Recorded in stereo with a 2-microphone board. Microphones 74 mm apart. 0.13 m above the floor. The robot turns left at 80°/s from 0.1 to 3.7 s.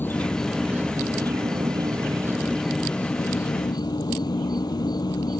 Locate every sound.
0.0 s an insect: 30° left; by 5.4 s 100° left